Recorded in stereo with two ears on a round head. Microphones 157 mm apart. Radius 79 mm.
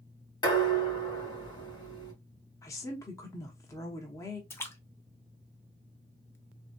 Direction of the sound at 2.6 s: 15° left (ahead or behind).